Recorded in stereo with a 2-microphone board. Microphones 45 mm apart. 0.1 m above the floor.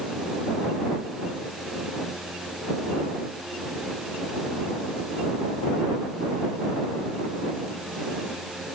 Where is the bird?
No bird in this recording.